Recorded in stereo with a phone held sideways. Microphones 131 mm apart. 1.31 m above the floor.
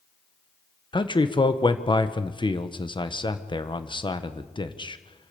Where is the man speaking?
35° left (ahead or behind), 1.2 m.